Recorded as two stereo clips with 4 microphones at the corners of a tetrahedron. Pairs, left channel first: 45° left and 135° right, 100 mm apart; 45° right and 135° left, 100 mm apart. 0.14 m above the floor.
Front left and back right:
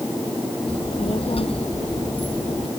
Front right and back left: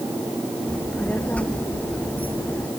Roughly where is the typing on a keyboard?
No typing on a keyboard in this recording.